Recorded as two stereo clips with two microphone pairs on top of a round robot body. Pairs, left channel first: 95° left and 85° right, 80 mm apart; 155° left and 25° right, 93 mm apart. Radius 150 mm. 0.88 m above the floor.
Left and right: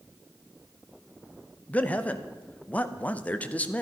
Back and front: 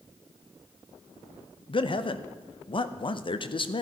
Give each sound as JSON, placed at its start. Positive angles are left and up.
{"t": 1.7, "sound": "a man speaking", "azimuth_deg": 160, "distance_m": 0.9}